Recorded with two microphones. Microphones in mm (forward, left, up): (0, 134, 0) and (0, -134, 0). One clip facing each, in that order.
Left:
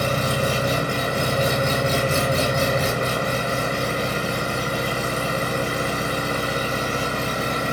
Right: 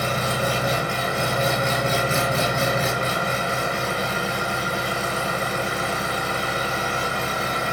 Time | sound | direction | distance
0.0 | an engine running | 40° left (ahead or behind) | 1.1 m